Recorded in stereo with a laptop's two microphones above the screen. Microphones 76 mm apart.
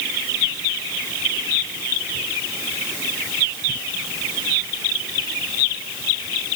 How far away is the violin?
I don't hear a violin.